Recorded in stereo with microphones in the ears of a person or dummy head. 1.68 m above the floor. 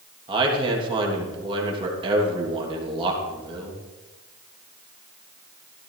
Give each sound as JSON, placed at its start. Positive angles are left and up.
{"t": 0.3, "sound": "a man speaking", "side_deg": -25, "distance_m": 3.0}